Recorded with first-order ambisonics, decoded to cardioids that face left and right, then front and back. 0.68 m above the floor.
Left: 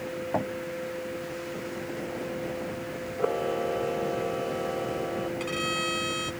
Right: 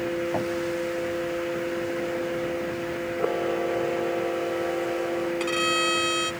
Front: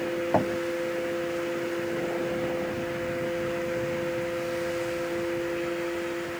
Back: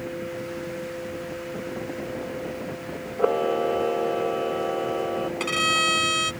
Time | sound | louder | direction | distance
0.3 | knocking | right 2 dB, front 8 dB | 10° left | ?
3.2 | a camera shutter | right 1 dB, back 7 dB | straight behind | ?
5.4 | a violin | right 7 dB, back 8 dB | 160° right | ?